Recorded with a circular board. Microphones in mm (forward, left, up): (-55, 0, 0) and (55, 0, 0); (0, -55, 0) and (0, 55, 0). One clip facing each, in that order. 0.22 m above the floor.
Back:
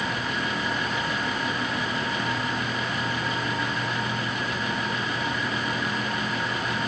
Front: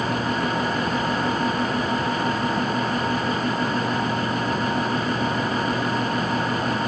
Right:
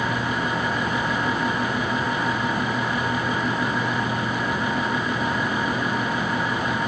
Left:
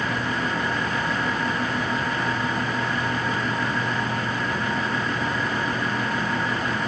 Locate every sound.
Only background noise.